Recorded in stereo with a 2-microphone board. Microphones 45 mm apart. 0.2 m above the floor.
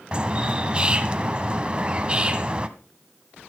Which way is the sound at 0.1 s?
25° right (ahead or behind).